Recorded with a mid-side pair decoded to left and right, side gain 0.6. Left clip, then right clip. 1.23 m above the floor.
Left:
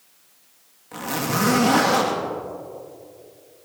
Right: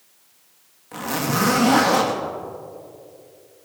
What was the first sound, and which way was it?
A zipper, 5° right.